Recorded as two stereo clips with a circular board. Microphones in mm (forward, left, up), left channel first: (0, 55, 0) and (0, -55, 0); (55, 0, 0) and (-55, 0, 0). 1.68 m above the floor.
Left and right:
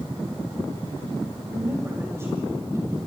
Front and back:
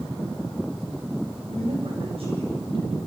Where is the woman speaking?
155° right, 8.5 m; by 3.0 s 150° right, 7 m.